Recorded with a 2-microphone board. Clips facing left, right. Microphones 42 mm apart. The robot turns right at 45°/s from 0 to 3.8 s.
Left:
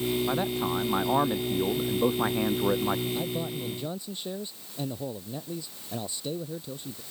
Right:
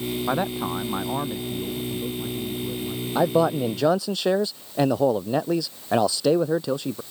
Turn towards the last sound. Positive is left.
turn(degrees=-75)  # may be behind; listen again after turning